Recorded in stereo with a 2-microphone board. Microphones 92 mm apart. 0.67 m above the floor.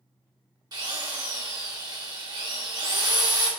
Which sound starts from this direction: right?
A drill, at 0.7 s.